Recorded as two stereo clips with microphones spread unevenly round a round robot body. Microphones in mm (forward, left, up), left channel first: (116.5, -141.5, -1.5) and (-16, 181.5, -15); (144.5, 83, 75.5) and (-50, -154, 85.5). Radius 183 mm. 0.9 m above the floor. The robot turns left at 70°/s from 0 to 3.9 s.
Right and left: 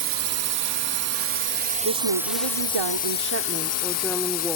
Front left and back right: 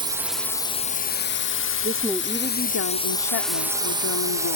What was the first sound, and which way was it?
A drone, 160° left.